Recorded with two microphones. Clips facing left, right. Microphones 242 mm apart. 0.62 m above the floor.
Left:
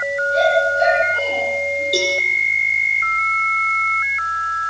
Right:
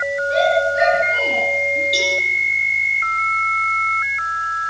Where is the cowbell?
50° left (ahead or behind), 8.5 m.